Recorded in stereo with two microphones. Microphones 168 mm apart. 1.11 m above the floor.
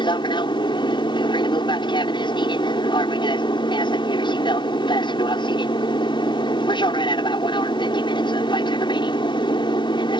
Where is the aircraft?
30° left (ahead or behind).